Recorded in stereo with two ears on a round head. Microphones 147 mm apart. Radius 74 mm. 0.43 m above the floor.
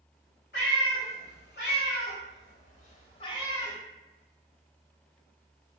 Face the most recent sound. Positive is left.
turn(degrees=15)  # may be behind; listen again after turning